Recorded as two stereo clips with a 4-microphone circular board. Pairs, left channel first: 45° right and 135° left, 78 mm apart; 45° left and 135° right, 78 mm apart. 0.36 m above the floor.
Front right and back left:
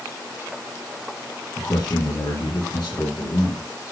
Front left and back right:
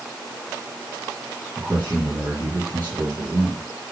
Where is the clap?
No clap in this recording.